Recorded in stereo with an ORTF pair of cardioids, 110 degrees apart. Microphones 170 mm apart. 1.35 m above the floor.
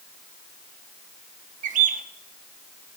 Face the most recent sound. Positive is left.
turn(degrees=-50)